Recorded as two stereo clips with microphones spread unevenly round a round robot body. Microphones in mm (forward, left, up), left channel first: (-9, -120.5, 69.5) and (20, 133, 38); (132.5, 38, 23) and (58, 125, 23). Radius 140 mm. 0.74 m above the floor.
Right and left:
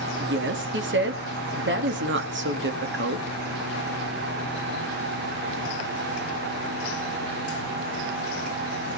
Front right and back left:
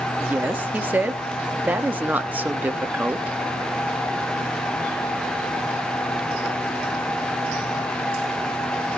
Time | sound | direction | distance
0.2 | a woman speaking | 55° left | 1.4 m